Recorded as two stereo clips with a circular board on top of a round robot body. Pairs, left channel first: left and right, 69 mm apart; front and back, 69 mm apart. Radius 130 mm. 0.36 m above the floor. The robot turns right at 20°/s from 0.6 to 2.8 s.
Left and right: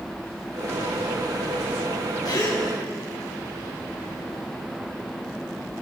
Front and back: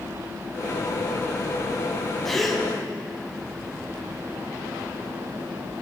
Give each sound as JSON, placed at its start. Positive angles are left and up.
{"t": 2.2, "sound": "a gasp", "azimuth_deg": 85, "distance_m": 4.0}